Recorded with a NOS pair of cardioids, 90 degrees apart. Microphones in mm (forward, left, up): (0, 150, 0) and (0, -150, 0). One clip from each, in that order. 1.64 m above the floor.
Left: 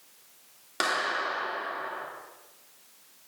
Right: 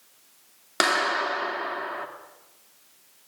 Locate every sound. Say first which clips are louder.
0.8 s a clap: right 5 dB; 50° right, 3 m